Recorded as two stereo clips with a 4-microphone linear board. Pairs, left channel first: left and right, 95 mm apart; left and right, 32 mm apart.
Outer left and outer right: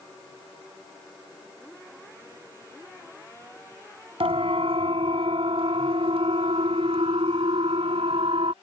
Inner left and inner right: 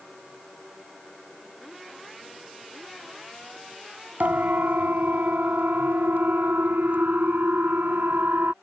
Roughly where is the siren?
Right.